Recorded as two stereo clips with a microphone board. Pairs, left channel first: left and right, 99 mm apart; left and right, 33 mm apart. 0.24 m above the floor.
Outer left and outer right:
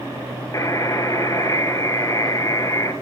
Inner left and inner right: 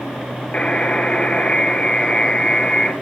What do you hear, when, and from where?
0.5 s a buzzer: 35° left (ahead or behind), 1.8 m